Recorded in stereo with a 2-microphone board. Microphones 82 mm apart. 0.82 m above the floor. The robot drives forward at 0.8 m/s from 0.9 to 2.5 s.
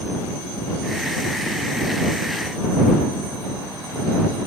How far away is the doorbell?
No doorbell in this recording.